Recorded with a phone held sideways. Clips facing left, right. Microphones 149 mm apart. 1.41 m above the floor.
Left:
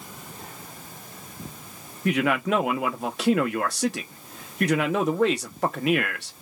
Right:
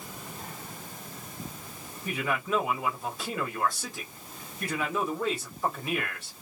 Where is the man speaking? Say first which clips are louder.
Left 8 dB; 75° left (ahead or behind), 0.7 m.